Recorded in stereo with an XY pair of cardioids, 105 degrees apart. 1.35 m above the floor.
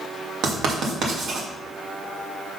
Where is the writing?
65° right, 2 m.